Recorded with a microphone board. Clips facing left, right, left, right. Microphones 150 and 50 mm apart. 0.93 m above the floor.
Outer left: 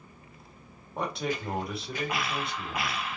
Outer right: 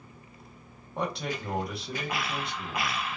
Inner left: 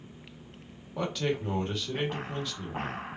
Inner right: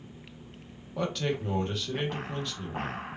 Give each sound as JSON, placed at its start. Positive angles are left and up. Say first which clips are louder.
{"t": 1.0, "sound": "a man speaking", "louder": "outer left 1 dB, even", "side_deg": 0, "distance_m": 1.3}